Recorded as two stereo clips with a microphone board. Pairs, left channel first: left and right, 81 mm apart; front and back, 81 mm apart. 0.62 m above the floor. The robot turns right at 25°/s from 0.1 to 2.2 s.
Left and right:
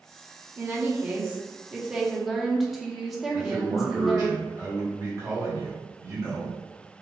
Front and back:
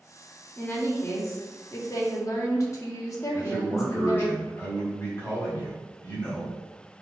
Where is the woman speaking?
45° right, 0.9 m; by 4.3 s 5° right, 0.9 m.